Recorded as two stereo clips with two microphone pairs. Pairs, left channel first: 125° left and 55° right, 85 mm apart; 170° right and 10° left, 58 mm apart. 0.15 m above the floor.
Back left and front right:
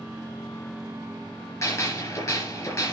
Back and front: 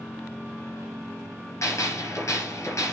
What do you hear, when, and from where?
1.6 s a gunshot: 170° left, 3.5 m